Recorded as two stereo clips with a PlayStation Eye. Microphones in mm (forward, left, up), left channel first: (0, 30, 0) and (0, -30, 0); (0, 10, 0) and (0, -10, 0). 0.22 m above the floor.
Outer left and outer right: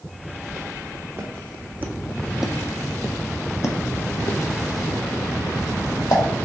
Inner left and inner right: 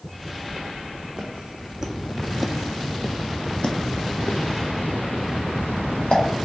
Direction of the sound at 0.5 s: 55° right (ahead or behind).